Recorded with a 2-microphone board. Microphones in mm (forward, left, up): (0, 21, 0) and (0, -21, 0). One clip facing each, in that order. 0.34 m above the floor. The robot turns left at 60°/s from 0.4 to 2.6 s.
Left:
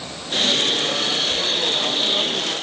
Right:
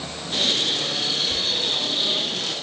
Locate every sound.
1.3 s whispering: centre (ahead or behind), 1.0 m; by 1.4 s 5° left (ahead or behind), 1.0 m